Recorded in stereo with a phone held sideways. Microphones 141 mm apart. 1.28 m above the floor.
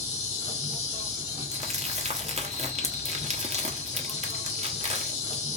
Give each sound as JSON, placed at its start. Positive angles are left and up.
{"t": 0.0, "sound": "an insect", "side_deg": 55, "distance_m": 3.0}
{"t": 1.5, "sound": "crumpling", "side_deg": -55, "distance_m": 1.0}